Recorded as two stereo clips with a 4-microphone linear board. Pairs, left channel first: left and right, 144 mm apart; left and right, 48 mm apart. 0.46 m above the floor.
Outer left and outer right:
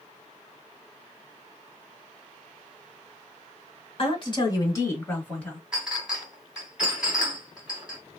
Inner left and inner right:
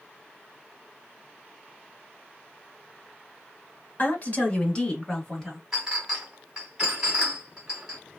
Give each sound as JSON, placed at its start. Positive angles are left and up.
{"t": 4.0, "sound": "a woman speaking", "side_deg": 40, "distance_m": 1.4}
{"t": 5.7, "sound": "a clink", "side_deg": -5, "distance_m": 1.9}